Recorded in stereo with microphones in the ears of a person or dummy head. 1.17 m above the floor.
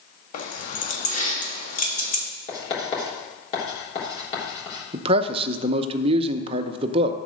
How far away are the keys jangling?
About 1.4 m.